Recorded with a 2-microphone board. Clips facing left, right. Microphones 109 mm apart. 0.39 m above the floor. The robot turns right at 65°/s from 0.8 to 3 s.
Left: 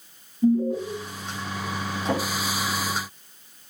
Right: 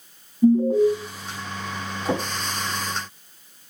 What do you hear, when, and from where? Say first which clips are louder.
0.4 s an alarm: right 5 dB; 25° right (ahead or behind), 2.5 m; by 0.9 s 20° right (ahead or behind), 2.5 m
2.0 s a drawer: right 1 dB; 10° right (ahead or behind), 4 m; by 2.2 s 25° right (ahead or behind), 4 m